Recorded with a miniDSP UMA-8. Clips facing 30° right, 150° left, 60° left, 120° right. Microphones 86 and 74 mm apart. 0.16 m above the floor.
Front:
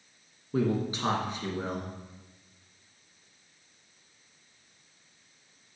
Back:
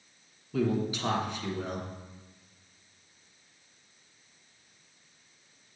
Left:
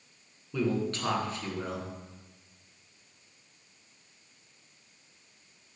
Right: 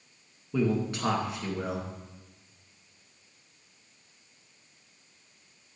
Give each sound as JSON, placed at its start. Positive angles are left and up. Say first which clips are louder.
{"t": 0.5, "sound": "a man speaking", "louder": "front 1 dB, right 2 dB", "azimuth_deg": -50, "distance_m": 2.0}